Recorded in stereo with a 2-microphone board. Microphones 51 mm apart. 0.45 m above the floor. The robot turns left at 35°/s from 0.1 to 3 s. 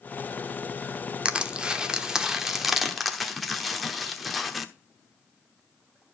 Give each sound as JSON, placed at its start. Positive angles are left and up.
{"t": 1.2, "sound": "crushing", "side_deg": -20, "distance_m": 1.0}